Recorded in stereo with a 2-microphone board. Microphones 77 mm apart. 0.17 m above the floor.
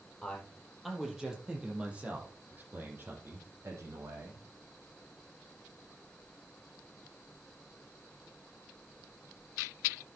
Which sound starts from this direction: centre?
A man speaking, at 0.2 s.